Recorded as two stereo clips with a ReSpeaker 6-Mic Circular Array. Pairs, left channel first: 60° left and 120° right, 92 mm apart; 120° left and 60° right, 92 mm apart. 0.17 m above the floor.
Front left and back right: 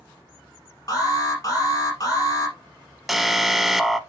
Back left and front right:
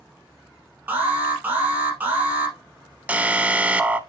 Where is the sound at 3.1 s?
35° right, 0.7 m.